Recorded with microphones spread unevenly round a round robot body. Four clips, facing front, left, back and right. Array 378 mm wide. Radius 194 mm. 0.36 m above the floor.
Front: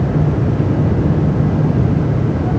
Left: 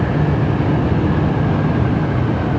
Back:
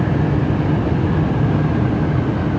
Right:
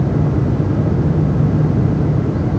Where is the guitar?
No guitar in this recording.